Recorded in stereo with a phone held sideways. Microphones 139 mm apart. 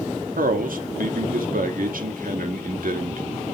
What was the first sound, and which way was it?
A man speaking, 85° right.